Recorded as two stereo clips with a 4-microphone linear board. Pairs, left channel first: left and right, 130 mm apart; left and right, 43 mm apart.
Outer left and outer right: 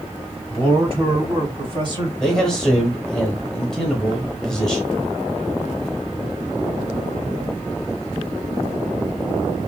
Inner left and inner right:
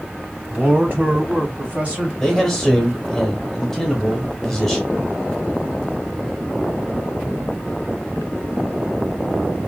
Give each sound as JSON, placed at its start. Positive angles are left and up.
{"t": 0.5, "sound": "a man speaking", "side_deg": -45, "distance_m": 2.0}
{"t": 2.2, "sound": "a man speaking", "side_deg": 5, "distance_m": 0.9}